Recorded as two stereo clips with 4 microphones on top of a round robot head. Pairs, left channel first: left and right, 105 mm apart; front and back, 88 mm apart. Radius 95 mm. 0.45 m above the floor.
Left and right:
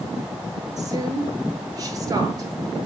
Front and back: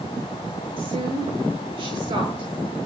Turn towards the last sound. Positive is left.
turn(degrees=-145)